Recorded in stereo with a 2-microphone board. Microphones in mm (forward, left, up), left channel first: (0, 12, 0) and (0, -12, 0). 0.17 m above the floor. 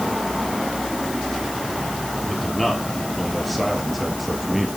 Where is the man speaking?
5° left (ahead or behind), 4.5 m; by 4.7 s centre (ahead or behind), 3 m.